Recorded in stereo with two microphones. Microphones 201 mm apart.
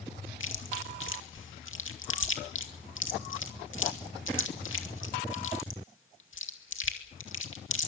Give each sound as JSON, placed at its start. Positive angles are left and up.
{"t": 0.4, "sound": "chewing", "side_deg": 85, "distance_m": 2.5}